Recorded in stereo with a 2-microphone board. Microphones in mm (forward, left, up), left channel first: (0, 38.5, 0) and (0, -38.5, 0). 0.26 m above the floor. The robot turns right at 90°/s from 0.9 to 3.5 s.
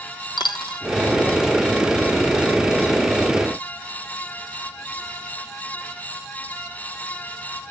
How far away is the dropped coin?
About 0.9 m.